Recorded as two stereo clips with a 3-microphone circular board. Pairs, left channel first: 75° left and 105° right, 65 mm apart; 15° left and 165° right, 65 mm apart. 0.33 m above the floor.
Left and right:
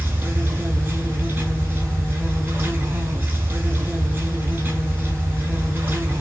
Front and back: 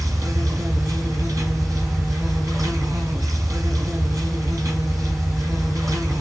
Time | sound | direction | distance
0.0 | an insect | 155° right | 3.5 m